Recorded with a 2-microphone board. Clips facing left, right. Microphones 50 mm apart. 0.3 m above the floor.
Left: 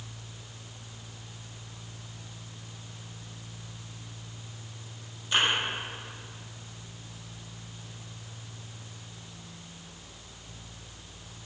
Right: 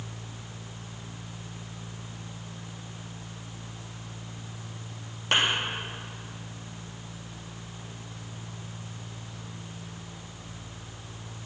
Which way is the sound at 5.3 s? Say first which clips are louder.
Right 2 dB; 75° right (ahead or behind).